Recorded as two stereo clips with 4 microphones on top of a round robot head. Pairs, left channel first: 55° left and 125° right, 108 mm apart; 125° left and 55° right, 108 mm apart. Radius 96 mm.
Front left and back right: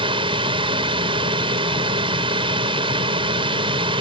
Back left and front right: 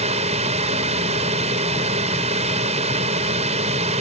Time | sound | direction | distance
0.0 | a drone | 80° right | ?